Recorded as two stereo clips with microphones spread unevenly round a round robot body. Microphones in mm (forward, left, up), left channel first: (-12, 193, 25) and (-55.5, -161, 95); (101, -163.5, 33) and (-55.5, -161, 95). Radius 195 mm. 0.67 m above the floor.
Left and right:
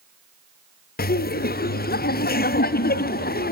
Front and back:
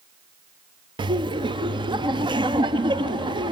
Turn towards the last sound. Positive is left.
turn(degrees=105)